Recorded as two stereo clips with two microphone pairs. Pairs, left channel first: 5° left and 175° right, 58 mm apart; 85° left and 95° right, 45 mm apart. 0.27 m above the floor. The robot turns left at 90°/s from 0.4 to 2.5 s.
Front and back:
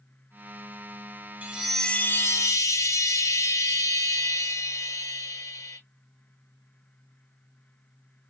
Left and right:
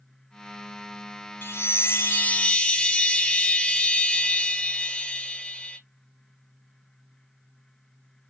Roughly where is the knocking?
No knocking in this recording.